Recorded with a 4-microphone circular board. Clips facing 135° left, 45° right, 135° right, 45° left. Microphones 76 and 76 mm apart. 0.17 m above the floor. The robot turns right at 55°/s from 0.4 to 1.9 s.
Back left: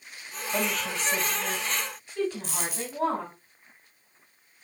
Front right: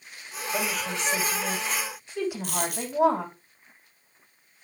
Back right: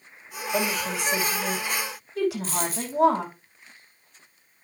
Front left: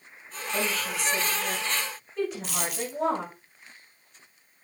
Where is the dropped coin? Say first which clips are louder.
Front right 4 dB, back right 3 dB; 80° right, 3.5 m.